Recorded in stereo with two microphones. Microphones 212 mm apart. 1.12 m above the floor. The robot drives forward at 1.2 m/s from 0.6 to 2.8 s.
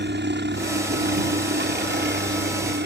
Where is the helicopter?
55° right (ahead or behind); by 2.9 s 50° right (ahead or behind).